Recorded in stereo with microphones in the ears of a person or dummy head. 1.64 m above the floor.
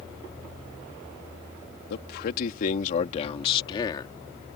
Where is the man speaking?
60° left (ahead or behind); by 4.2 s 20° left (ahead or behind).